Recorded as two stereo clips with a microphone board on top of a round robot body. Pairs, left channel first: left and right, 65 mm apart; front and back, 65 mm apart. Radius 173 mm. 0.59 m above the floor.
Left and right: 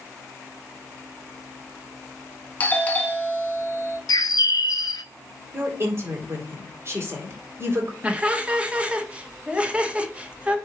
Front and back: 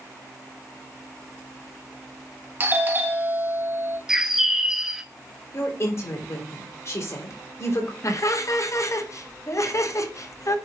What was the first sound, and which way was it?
A doorbell, 140° left.